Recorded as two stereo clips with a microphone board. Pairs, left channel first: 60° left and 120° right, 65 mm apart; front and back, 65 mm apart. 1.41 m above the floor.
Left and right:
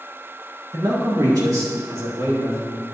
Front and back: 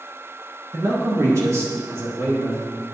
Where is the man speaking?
140° right, 1.5 m; by 2.8 s 145° right, 4.5 m.